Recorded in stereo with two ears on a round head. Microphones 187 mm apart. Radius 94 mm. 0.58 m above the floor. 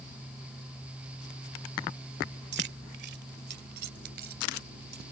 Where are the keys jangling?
55° right (ahead or behind); by 5.0 s 50° right (ahead or behind).